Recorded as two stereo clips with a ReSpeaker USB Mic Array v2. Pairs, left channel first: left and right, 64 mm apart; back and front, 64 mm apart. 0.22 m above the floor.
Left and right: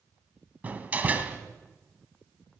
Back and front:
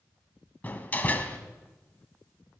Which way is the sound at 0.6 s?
135° right.